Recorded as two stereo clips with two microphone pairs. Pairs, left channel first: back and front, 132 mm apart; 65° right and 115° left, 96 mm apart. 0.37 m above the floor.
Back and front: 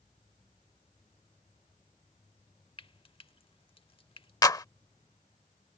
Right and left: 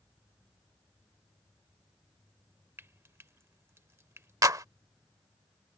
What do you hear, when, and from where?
2.8 s frying: 165° left
4.4 s a clap: 140° left